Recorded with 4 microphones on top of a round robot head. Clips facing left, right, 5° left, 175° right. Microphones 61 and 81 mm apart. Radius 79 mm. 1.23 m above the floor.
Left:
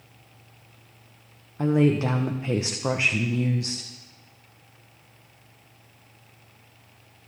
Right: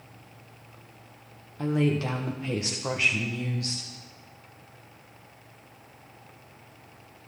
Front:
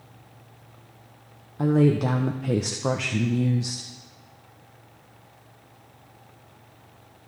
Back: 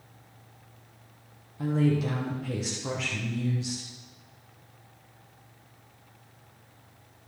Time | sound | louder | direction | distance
1.6 | a woman speaking | left 5 dB, front 6 dB | 25° left | 1.2 m